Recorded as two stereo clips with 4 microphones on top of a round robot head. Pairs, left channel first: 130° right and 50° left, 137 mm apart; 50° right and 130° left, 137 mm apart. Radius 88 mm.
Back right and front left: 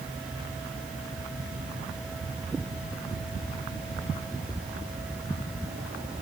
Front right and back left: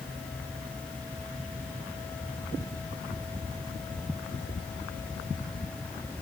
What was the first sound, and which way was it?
Only background noise.